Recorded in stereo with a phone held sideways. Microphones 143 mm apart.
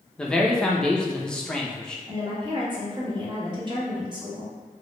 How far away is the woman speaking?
About 1.1 m.